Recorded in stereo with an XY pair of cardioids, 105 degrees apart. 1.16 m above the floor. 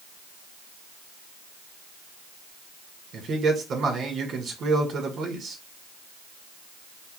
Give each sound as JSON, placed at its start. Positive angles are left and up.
{"t": 3.1, "sound": "a man speaking", "azimuth_deg": -55, "distance_m": 1.8}